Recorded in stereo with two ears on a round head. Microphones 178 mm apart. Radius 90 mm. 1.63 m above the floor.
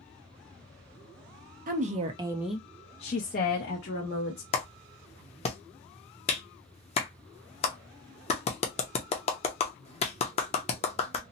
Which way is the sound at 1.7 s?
45° right (ahead or behind).